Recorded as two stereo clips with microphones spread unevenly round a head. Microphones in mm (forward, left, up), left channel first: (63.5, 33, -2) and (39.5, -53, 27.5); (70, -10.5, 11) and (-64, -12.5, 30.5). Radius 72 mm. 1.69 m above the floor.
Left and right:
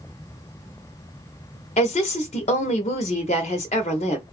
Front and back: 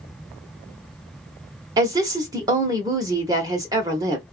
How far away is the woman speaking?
About 0.8 m.